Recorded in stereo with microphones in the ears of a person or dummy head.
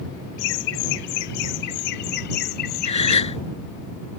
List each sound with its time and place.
0.4 s laughter: 60° left (ahead or behind); by 3.2 s 45° left (ahead or behind)
2.9 s a gasp: 30° left (ahead or behind)